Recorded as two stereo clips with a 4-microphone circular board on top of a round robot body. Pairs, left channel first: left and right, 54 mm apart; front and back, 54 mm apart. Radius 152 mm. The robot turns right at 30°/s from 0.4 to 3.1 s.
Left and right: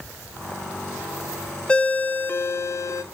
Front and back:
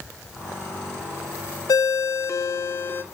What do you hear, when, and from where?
1.7 s a ringtone: 15° left, 0.8 m; by 3.0 s 55° left, 0.8 m